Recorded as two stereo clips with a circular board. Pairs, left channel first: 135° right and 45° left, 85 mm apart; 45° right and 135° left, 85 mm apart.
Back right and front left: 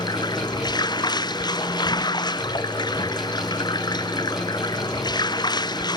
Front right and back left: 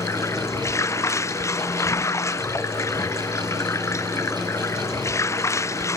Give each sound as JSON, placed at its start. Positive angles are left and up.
{"t": 0.0, "sound": "running water", "azimuth_deg": -100}